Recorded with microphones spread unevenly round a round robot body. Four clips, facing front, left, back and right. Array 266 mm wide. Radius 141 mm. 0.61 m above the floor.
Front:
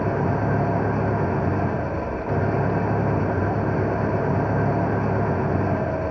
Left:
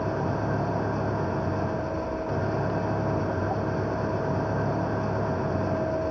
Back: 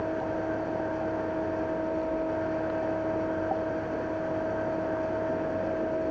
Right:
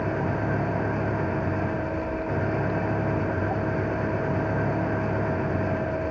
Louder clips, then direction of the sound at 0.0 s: Right 1 dB, front 7 dB; 5° right.